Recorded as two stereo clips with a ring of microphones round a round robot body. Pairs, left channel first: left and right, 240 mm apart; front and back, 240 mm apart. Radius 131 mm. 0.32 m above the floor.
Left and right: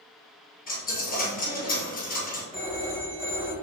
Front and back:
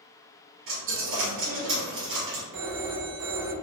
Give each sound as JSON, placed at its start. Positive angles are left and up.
{"t": 0.7, "sound": "a dropped coin", "azimuth_deg": 145, "distance_m": 2.0}
{"t": 2.5, "sound": "a phone ringing", "azimuth_deg": -155, "distance_m": 1.7}